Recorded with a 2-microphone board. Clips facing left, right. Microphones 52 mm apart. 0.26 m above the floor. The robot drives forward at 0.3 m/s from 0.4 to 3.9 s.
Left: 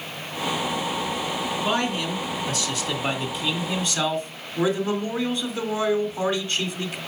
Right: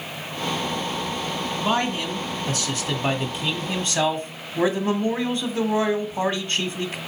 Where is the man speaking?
30° right (ahead or behind), 2 m; by 7.0 s 40° right (ahead or behind), 1.7 m.